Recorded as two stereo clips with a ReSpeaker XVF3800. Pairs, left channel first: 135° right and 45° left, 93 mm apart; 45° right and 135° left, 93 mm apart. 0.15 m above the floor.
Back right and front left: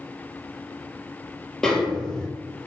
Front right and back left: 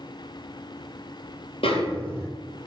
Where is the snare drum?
50° right, 0.9 m.